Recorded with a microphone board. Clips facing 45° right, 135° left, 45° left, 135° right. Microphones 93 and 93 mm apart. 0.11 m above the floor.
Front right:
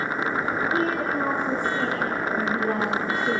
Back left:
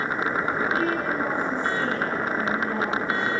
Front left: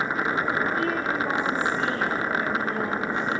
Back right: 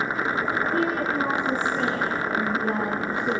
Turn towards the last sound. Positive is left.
turn(degrees=-85)